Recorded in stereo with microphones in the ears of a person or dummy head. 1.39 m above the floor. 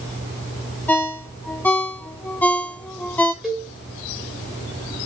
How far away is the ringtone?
About 0.5 m.